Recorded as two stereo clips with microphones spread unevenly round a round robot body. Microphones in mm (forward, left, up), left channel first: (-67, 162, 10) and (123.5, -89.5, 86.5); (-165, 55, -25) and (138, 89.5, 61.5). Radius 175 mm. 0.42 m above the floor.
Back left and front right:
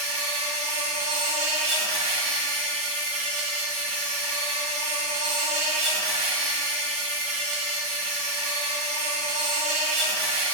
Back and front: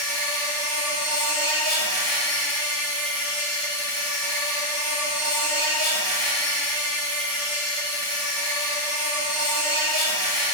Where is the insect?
110° right, 0.9 m.